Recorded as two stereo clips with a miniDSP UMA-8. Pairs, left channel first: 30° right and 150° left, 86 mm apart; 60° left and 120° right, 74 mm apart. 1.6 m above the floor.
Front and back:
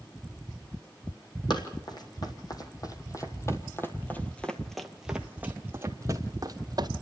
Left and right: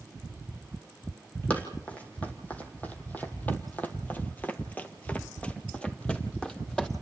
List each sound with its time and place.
1.5 s running footsteps: 10° right, 3.5 m; by 6.9 s 140° left, 2.5 m